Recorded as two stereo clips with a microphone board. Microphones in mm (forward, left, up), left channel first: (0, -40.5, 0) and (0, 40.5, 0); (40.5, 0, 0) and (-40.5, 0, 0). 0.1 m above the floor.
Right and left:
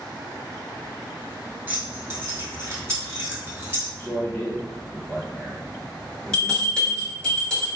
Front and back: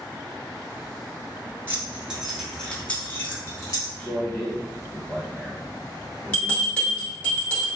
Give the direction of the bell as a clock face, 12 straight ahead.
1 o'clock.